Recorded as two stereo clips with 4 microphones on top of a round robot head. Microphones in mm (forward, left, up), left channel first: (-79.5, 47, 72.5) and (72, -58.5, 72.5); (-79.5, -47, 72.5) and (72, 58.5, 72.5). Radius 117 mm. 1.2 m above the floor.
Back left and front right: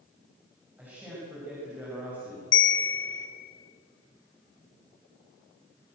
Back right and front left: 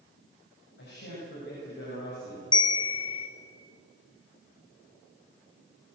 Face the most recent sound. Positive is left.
turn(degrees=150)